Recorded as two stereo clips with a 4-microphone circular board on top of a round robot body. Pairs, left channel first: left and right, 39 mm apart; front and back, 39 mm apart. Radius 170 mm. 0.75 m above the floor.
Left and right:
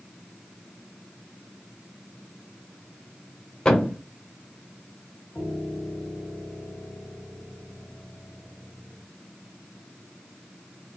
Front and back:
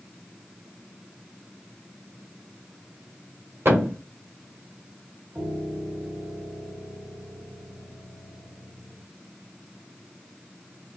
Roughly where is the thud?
Behind.